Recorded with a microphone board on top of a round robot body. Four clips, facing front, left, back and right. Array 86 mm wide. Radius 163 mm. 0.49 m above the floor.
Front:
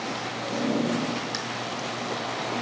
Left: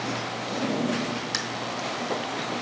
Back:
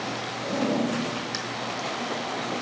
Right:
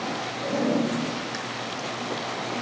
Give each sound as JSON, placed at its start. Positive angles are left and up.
{"t": 0.4, "sound": "a zipper", "azimuth_deg": -100, "distance_m": 2.0}